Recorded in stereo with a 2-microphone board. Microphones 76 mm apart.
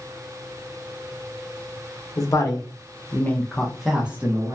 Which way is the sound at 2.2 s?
50° left (ahead or behind).